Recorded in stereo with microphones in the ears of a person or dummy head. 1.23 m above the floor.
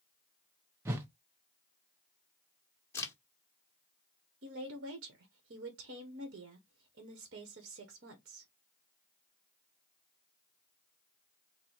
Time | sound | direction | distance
0.8 | a whoosh | 10° right (ahead or behind) | 0.5 m
2.9 | a crack | 15° left (ahead or behind) | 1.1 m
4.4 | a woman speaking | 60° right (ahead or behind) | 1.1 m